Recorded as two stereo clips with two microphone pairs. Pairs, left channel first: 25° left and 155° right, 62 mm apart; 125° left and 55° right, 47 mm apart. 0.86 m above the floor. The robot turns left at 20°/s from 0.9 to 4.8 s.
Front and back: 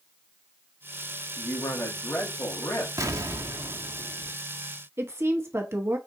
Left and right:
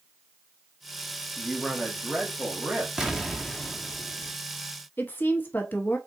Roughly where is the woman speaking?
Behind.